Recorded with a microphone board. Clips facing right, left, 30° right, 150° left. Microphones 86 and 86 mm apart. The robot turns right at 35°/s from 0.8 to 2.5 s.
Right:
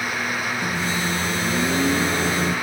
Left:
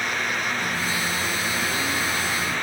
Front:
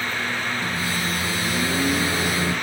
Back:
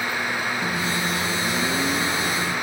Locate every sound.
0.6 s a microwave: 150° right, 1.9 m; by 2.5 s 95° right, 1.9 m